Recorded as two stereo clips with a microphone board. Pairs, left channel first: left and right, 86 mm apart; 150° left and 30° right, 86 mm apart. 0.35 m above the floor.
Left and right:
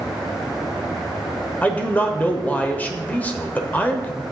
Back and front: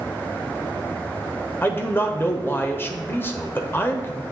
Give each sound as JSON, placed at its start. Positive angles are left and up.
{"t": 1.6, "sound": "a man speaking", "azimuth_deg": 135, "distance_m": 0.9}